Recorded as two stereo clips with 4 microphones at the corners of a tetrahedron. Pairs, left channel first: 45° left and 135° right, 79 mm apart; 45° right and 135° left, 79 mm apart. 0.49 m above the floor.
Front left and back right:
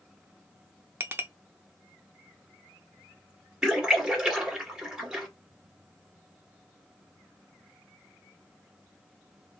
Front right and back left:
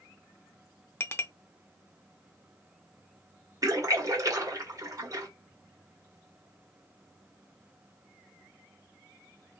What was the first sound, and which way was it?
A clink, 85° right.